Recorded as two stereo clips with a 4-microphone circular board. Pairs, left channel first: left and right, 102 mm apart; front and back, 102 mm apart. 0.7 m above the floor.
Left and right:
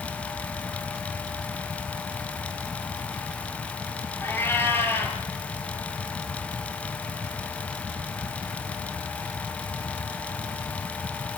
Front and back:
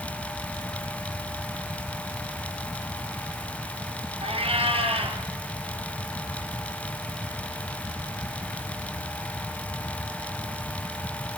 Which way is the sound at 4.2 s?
160° left.